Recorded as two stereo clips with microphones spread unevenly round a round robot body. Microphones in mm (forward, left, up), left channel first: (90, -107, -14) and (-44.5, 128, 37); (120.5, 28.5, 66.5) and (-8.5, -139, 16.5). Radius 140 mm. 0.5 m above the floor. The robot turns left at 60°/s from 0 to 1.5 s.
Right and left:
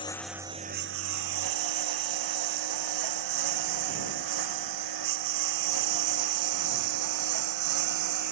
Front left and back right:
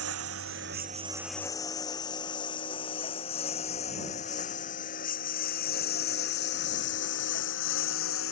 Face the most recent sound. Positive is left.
turn(degrees=95)